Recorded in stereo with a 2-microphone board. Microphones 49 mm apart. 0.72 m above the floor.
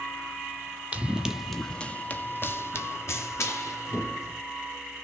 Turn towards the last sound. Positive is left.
turn(degrees=70)  # may be behind; listen again after turning